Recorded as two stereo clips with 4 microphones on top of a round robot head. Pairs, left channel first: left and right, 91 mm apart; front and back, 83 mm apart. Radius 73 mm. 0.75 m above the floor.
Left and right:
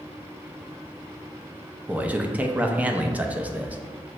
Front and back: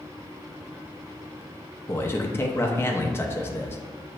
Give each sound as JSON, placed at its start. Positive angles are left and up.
{"t": 1.9, "sound": "a man speaking", "azimuth_deg": -25, "distance_m": 0.5}